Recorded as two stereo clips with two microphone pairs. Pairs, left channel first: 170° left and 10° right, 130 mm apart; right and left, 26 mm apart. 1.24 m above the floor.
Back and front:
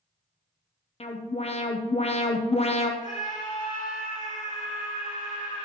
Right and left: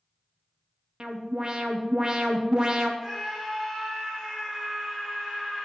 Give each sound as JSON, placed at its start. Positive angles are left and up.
{"t": 1.0, "sound": "an alarm", "azimuth_deg": 145, "distance_m": 0.6}
{"t": 3.0, "sound": "a scream", "azimuth_deg": 170, "distance_m": 2.0}